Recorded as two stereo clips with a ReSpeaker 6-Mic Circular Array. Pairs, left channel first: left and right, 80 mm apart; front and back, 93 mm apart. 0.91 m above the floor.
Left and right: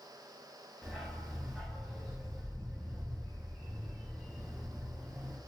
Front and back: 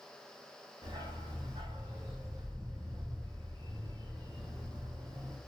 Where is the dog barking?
Straight behind, 1.8 m.